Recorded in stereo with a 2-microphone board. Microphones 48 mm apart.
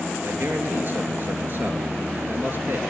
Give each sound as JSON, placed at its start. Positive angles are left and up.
{"t": 0.2, "sound": "a man speaking", "side_deg": -45, "distance_m": 3.5}